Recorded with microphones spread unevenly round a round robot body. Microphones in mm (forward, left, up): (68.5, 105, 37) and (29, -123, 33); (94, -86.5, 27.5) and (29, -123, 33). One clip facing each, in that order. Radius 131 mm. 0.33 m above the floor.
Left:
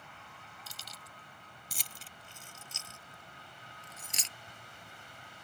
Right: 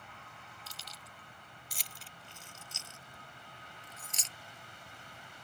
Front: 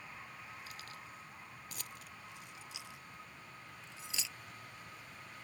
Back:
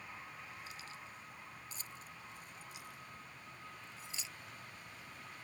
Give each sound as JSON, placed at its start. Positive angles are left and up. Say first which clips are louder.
{"t": 0.7, "sound": "keys jangling", "louder": "even, even", "azimuth_deg": 95}